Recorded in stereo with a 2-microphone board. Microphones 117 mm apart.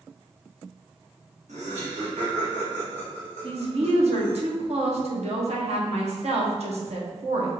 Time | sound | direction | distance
1.5 | laughter | 75° right (ahead or behind) | 1.9 m
3.4 | a woman speaking | 60° right (ahead or behind) | 1.2 m